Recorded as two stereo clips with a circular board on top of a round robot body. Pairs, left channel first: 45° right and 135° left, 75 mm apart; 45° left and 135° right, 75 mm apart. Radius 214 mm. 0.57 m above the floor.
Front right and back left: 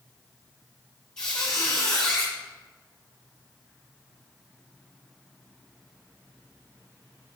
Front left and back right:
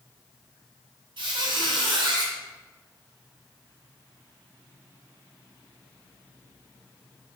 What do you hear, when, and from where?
1.2 s a squeak: 125° right, 0.7 m